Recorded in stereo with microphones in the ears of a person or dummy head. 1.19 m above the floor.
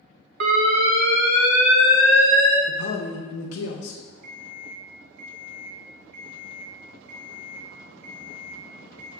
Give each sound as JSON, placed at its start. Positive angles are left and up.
{"t": 0.4, "sound": "an alarm", "side_deg": -60, "distance_m": 0.7}
{"t": 2.7, "sound": "a man speaking", "side_deg": 70, "distance_m": 0.6}
{"t": 4.2, "sound": "an alarm clock", "side_deg": -55, "distance_m": 0.7}